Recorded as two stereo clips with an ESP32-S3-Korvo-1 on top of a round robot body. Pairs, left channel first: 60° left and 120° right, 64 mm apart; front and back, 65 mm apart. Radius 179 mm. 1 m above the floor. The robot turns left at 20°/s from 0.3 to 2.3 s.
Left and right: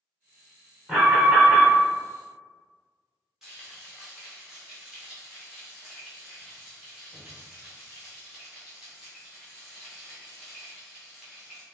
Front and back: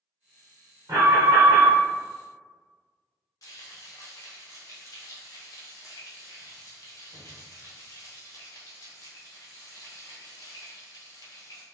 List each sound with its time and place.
0.9 s an alarm: 160° left, 1.7 m; by 1.8 s 145° left, 1.7 m
3.4 s frying: 35° right, 0.5 m